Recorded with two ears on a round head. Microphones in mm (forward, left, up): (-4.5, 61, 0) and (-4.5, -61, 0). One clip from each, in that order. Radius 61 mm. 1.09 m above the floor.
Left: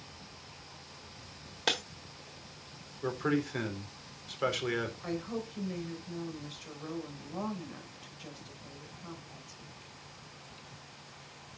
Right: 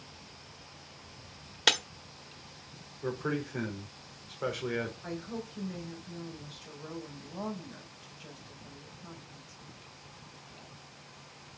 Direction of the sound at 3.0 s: 65° left (ahead or behind).